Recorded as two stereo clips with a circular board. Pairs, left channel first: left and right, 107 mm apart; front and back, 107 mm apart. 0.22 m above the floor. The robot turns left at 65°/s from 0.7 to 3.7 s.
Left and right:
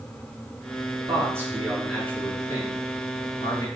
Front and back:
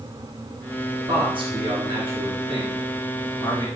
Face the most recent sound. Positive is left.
turn(degrees=55)